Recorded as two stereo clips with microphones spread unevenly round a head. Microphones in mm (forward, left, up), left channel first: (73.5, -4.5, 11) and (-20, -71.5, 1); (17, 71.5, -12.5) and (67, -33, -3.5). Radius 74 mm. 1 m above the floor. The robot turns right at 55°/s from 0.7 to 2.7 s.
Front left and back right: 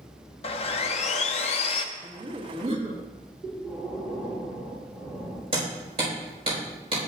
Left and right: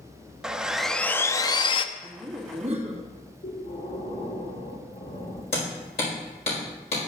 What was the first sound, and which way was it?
Sawing, 15° left.